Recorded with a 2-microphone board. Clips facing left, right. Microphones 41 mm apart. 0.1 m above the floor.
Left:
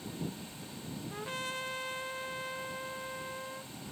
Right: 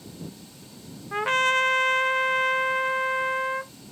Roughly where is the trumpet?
Right.